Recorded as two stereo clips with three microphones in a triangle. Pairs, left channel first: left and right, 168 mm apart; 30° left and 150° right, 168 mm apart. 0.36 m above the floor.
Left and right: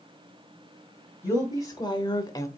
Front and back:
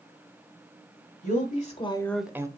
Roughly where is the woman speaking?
Ahead.